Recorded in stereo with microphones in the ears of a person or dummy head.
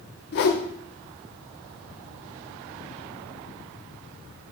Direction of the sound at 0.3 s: 50° left (ahead or behind).